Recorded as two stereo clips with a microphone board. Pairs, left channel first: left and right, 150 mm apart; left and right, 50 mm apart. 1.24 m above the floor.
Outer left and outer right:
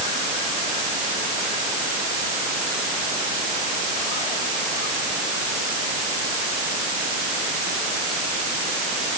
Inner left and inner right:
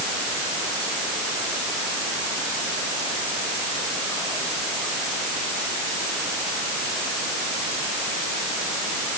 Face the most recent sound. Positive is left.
No sound to turn to.